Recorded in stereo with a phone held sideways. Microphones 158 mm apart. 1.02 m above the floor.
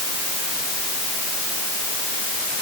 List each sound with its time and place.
Only background noise.